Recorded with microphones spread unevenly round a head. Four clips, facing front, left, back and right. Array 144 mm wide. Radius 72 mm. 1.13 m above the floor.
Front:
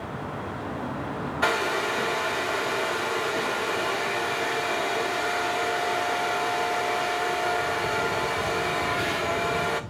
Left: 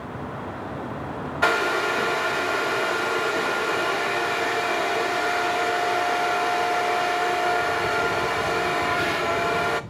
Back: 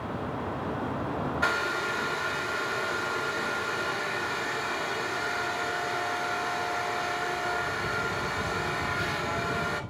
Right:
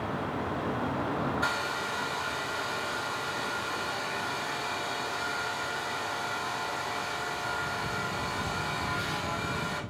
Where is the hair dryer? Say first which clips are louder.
Left 10 dB, front 6 dB; 60° left, 0.8 m.